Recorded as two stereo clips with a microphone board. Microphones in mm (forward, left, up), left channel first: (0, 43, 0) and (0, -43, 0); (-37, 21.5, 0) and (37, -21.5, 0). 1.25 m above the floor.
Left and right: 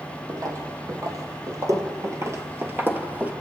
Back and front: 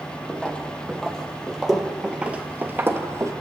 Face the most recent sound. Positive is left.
turn(degrees=-30)